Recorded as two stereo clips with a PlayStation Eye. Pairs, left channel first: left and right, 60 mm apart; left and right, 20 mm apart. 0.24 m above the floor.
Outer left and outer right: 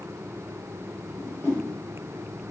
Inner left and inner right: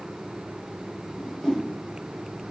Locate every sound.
1.1 s a whoosh: 40° left (ahead or behind), 1.2 m